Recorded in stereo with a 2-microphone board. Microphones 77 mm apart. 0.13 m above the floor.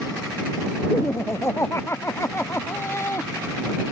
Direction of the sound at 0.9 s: 35° left (ahead or behind).